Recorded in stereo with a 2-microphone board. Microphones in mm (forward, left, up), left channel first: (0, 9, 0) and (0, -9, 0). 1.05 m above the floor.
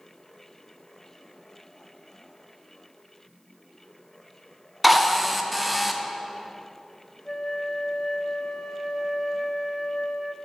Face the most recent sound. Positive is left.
turn(degrees=20)  # may be behind; listen again after turning